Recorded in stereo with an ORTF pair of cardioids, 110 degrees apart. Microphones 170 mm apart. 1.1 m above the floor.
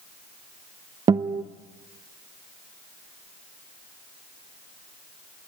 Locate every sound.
1.1 s a guitar: 30° right, 1.0 m